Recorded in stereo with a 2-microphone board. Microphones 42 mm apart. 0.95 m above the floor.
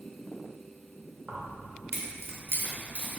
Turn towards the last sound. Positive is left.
turn(degrees=-35)  # may be behind; listen again after turning